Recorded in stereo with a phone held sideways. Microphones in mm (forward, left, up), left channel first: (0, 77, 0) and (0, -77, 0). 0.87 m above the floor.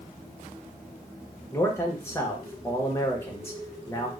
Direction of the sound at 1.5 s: 15° left (ahead or behind).